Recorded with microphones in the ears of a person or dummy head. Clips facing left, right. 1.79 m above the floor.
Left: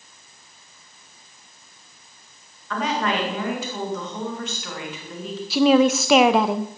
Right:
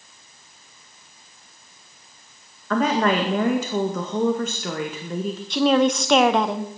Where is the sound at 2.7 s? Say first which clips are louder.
Right 4 dB; 45° right (ahead or behind), 1.9 m.